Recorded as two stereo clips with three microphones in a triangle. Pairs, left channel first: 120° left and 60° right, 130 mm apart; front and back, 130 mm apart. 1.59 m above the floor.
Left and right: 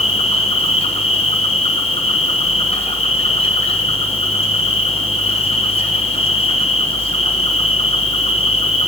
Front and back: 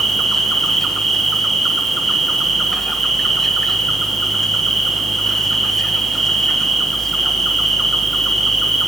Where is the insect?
90° left, 0.9 m.